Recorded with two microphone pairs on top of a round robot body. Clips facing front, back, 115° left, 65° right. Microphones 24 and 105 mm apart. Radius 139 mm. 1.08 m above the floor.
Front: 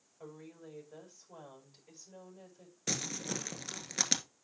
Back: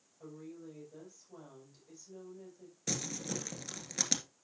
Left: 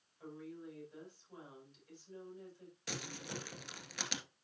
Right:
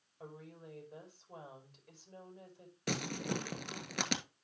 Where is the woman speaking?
25° right, 6.5 m.